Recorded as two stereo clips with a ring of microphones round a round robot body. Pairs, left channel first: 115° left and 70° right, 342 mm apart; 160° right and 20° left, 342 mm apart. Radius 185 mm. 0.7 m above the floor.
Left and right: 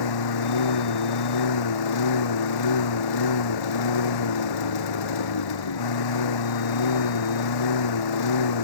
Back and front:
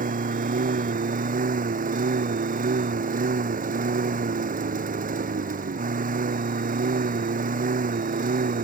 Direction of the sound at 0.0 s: 90° left.